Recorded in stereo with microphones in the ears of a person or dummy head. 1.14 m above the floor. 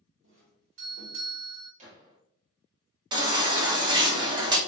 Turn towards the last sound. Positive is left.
turn(degrees=-25)  # may be behind; listen again after turning